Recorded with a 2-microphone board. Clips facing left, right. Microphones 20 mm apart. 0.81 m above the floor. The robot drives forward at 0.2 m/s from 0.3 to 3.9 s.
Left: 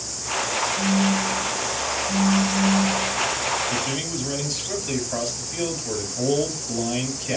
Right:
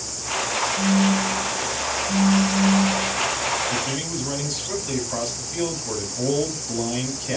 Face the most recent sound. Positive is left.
turn(degrees=0)  # may be behind; listen again after turning